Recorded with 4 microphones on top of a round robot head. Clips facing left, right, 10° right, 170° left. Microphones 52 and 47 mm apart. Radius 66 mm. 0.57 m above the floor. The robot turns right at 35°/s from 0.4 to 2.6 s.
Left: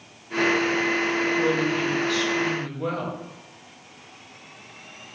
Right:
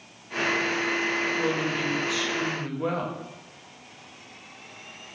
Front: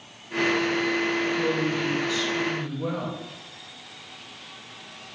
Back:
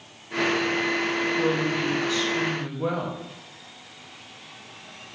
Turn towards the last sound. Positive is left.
turn(degrees=-145)